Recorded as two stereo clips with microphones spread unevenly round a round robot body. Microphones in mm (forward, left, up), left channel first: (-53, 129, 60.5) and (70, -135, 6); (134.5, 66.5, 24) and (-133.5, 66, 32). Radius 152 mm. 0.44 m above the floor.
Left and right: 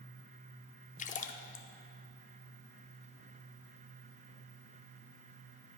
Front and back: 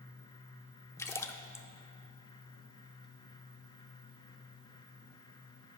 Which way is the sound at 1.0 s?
60° left.